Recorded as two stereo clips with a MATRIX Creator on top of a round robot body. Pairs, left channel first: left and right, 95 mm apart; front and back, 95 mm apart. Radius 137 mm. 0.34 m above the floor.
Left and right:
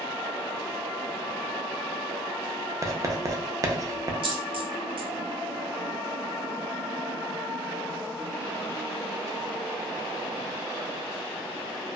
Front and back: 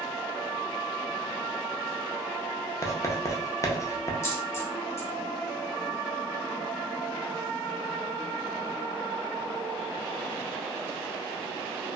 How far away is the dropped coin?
About 0.9 m.